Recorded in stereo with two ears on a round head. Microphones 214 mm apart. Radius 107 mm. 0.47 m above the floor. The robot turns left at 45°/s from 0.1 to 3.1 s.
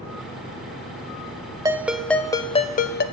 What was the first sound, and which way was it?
A ringtone, 165° right.